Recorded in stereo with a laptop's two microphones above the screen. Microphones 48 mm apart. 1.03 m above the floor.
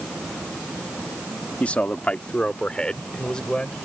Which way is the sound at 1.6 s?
30° left (ahead or behind).